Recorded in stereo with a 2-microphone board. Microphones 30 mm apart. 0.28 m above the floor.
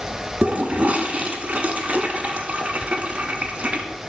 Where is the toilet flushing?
50° right (ahead or behind), 0.9 m.